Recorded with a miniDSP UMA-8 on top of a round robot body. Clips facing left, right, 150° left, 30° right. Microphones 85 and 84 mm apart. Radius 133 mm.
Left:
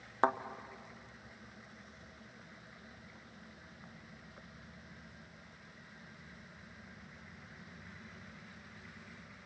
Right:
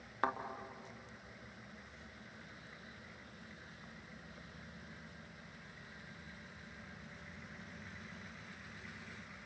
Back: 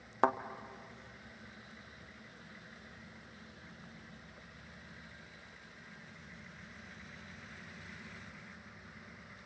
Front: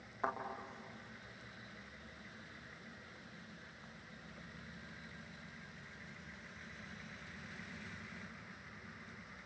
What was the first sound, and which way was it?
A thud, 150° left.